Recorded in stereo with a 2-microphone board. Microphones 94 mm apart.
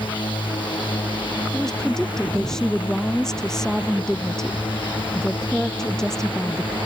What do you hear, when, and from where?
0.0 s a drone: 60° left (ahead or behind); by 6.9 s 65° left (ahead or behind)
1.5 s a woman speaking: 5° left (ahead or behind)